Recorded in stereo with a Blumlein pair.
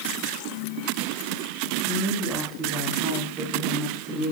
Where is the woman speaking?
5° left, 9 m; by 4.3 s straight ahead, 10.5 m.